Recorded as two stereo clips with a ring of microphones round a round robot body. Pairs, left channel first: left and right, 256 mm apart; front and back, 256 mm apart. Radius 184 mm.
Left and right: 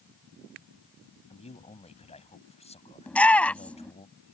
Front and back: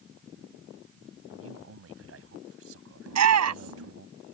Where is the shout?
175° left.